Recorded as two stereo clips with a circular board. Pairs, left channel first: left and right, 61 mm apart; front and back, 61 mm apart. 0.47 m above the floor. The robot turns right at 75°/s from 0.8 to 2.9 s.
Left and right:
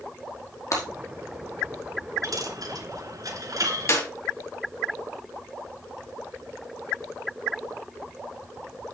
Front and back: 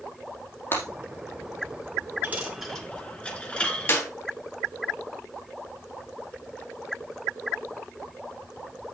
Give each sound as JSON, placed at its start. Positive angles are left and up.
{"t": 0.7, "sound": "breaking glass", "azimuth_deg": 50, "distance_m": 4.5}
{"t": 2.2, "sound": "a dropped coin", "azimuth_deg": -120, "distance_m": 2.5}
{"t": 3.9, "sound": "a clap", "azimuth_deg": 50, "distance_m": 3.5}